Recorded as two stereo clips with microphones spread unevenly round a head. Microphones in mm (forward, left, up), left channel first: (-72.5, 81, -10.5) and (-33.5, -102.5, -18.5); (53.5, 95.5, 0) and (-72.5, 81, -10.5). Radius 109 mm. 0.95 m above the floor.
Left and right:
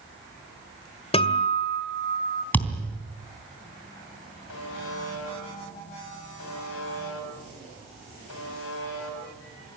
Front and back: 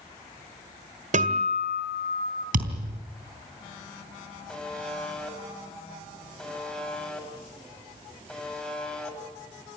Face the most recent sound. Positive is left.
turn(degrees=90)